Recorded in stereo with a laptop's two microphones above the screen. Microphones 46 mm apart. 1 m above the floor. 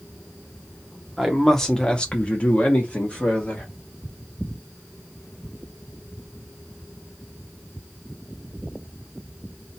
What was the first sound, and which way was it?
A man speaking, centre (ahead or behind).